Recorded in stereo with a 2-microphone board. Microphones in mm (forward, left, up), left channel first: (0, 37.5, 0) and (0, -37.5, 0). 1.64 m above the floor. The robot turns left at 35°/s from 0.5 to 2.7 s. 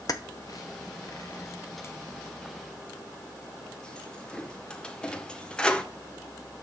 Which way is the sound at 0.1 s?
55° left (ahead or behind).